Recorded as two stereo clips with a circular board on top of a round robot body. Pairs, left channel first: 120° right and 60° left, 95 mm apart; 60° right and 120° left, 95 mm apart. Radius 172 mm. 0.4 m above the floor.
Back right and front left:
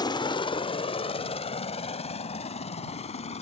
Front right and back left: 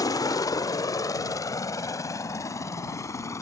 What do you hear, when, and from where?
0.0 s a helicopter: 100° right; by 3.4 s 120° right